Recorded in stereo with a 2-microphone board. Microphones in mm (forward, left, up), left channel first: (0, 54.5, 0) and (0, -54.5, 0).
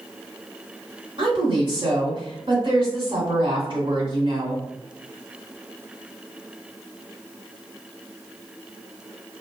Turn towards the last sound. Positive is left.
turn(degrees=-50)  # may be behind; listen again after turning